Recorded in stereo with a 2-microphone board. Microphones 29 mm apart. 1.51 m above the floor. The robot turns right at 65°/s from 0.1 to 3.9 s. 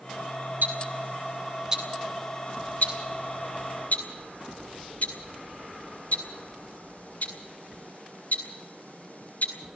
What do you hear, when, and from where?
0.6 s ticking: 85° right, 7.5 m; by 9.5 s 60° left (ahead or behind), 7.5 m